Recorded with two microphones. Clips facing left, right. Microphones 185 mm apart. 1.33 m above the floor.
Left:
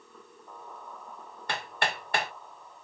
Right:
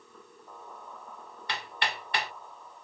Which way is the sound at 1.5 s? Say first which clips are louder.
Left 3 dB; 50° left (ahead or behind).